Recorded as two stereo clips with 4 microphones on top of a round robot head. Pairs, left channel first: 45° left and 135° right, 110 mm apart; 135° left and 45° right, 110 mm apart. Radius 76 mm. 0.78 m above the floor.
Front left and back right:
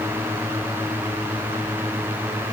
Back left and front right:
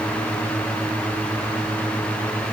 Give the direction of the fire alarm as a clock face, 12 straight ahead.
No fire alarm in this recording.